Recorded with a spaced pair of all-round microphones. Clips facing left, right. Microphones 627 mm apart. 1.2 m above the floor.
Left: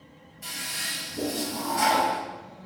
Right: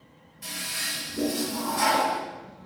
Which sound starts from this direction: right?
A toilet flushing, at 0.4 s.